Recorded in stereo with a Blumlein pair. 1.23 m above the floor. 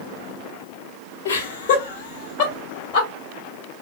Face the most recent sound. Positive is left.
turn(degrees=30)